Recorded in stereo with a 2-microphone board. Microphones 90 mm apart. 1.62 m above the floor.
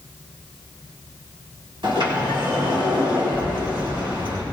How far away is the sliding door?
About 7 m.